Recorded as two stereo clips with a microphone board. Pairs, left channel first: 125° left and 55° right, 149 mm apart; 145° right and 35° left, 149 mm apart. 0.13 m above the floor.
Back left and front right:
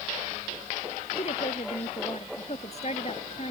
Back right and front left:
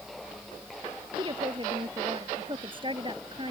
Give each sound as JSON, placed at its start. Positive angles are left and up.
{"t": 1.2, "sound": "a woman speaking", "azimuth_deg": 85}